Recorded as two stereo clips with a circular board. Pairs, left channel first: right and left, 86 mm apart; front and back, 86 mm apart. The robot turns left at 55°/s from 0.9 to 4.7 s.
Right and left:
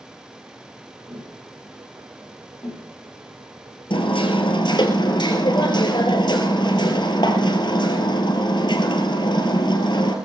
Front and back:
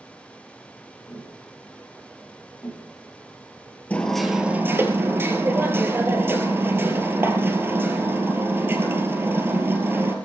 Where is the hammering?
75° right, 2.5 m; by 10.2 s 115° right, 2.5 m.